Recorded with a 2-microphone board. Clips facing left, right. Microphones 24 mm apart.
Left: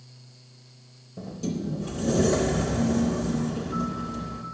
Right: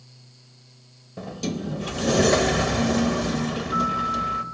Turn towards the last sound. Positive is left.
turn(degrees=-60)  # may be behind; listen again after turning